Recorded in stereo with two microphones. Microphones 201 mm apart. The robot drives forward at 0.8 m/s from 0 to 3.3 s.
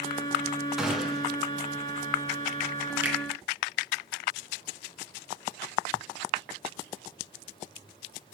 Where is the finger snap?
5° right (ahead or behind), 3.5 m.